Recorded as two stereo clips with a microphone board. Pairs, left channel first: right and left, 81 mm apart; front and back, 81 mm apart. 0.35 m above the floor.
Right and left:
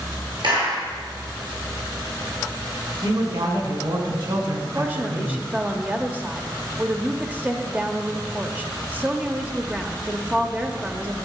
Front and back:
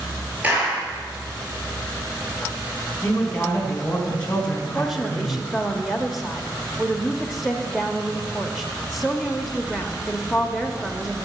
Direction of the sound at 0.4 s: 110° left.